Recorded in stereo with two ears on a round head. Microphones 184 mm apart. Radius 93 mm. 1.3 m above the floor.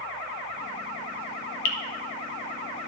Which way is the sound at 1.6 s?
65° left (ahead or behind).